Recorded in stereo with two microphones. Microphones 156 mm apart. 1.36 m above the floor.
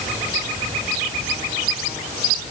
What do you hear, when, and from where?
Only background noise.